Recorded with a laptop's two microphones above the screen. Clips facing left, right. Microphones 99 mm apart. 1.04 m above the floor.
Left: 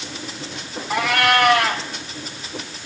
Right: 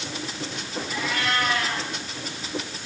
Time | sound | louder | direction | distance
0.9 | a cat meowing | left 9 dB | 65° left (ahead or behind) | 3.5 m